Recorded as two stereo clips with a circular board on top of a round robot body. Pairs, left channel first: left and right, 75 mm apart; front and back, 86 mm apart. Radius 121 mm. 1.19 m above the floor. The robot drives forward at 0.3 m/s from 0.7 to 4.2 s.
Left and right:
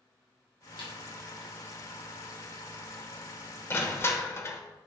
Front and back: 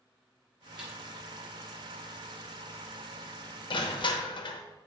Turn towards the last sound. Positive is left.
turn(degrees=35)